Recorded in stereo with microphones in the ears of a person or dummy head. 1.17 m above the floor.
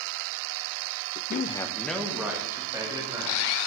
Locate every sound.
1.3 s a man speaking: 45° left (ahead or behind), 0.5 m; by 3.4 s 20° right (ahead or behind), 3 m